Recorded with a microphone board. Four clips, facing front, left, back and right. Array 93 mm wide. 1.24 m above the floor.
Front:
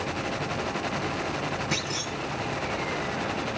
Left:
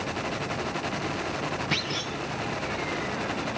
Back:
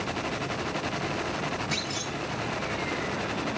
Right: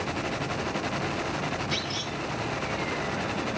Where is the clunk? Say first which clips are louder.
Left 1 dB, front 1 dB; 65° left, 1.6 m.